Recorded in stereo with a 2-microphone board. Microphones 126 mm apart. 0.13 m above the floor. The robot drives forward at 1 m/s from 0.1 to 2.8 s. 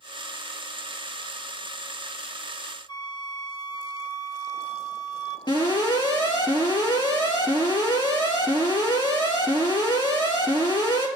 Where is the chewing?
No chewing in this recording.